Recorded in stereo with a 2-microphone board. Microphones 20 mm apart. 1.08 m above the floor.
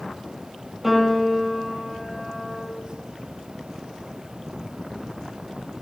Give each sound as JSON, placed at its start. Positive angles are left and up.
{"t": 0.8, "sound": "a piano", "side_deg": -5, "distance_m": 7.0}